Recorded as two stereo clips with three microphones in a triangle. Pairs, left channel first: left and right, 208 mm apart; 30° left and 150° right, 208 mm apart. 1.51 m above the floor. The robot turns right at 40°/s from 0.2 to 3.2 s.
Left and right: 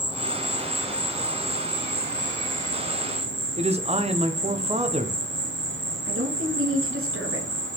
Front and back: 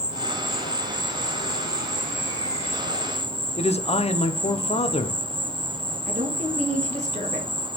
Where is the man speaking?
30° right, 0.8 m.